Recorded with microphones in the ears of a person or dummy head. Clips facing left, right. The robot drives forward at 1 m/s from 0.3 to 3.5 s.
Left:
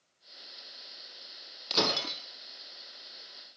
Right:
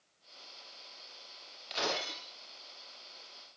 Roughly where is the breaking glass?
Left.